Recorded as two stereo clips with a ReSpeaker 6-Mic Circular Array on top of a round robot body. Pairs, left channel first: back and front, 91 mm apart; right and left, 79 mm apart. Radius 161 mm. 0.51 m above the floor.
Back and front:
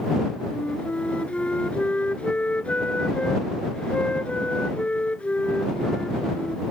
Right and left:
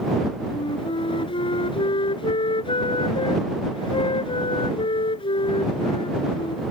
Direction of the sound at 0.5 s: 100° right.